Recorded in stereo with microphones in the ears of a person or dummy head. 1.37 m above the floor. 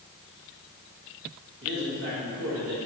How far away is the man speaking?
About 1.9 m.